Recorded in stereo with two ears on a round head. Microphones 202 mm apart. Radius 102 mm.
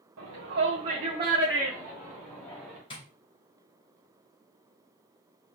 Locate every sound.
0.2 s a shout: 60° right (ahead or behind), 1.2 m; by 2.8 s 10° left (ahead or behind), 1.8 m
2.9 s tapping: 25° left (ahead or behind), 2.5 m